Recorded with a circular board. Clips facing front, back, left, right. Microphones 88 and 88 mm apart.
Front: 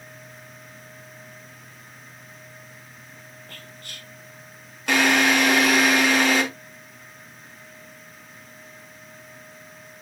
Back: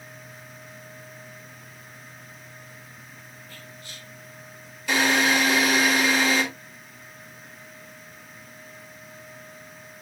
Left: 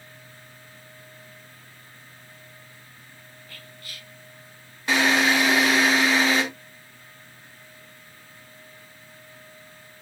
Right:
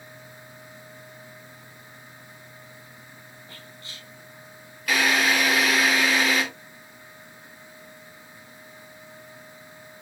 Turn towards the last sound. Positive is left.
turn(degrees=30)